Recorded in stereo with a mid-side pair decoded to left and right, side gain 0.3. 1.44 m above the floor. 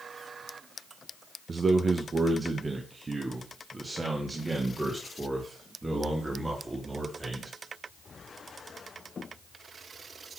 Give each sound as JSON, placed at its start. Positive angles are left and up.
{"t": 1.5, "sound": "a man speaking", "azimuth_deg": -50, "distance_m": 1.1}